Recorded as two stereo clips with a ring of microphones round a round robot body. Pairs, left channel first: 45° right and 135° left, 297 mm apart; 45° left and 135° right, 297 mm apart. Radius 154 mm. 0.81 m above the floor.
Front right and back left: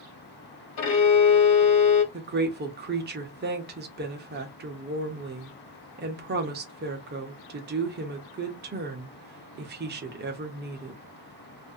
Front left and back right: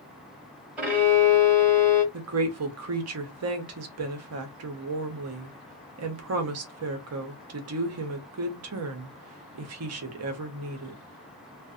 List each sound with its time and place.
0.8 s a violin: 50° right, 1.1 m
2.1 s a woman speaking: 170° right, 0.7 m